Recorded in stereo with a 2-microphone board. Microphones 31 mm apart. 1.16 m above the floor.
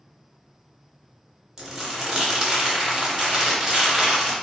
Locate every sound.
1.6 s crumpling: 20° right (ahead or behind), 1.1 m